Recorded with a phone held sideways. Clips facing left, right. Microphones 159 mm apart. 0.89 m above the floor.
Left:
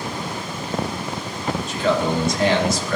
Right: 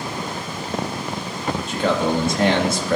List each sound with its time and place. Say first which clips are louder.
1.7 s a man speaking: even; 55° right (ahead or behind), 1.9 m